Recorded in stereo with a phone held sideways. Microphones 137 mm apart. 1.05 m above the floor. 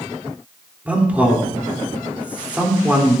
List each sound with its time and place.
0.8 s a man speaking: 10° right (ahead or behind), 3 m